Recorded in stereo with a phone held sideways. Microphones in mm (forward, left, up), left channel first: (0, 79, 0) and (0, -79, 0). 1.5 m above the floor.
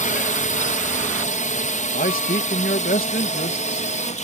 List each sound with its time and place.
0.0 s a drone: 55° left (ahead or behind); by 4.2 s 50° left (ahead or behind)
1.9 s a man speaking: 70° left (ahead or behind)